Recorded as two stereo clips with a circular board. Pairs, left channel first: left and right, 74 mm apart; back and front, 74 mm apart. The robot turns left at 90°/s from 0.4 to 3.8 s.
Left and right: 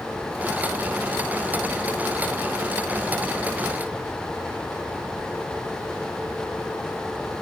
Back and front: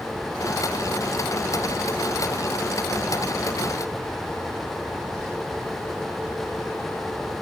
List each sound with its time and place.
Only background noise.